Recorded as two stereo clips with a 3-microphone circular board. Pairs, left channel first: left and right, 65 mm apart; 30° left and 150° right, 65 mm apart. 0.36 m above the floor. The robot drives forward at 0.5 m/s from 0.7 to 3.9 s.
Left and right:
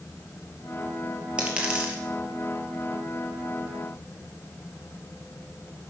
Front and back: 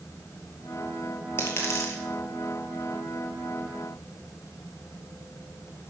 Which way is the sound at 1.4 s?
20° right.